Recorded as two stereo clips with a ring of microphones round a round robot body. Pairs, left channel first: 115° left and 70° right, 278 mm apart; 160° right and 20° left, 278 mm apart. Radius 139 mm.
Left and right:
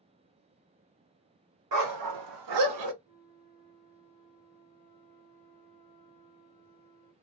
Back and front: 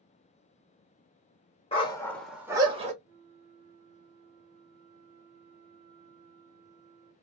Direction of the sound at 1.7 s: 85° right.